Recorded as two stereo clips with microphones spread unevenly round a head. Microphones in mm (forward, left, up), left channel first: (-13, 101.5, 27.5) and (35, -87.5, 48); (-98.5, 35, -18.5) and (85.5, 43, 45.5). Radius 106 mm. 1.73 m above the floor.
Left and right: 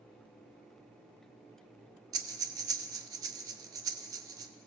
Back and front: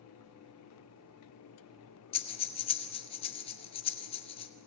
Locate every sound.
2.1 s breathing: 105° right, 1.2 m